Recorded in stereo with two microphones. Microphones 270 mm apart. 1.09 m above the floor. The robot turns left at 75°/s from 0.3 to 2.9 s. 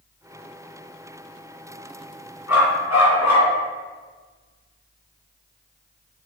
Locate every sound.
2.5 s a dog barking: 110° left, 2.5 m; by 3.5 s 80° left, 2.5 m